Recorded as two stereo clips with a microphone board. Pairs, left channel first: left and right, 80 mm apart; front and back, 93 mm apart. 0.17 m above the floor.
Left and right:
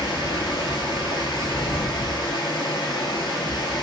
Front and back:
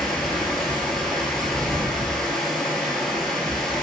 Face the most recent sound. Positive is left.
turn(degrees=85)